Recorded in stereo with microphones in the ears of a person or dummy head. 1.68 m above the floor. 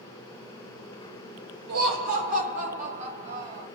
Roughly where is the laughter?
Right.